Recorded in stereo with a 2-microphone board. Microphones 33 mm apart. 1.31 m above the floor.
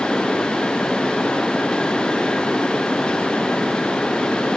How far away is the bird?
I don't hear a bird.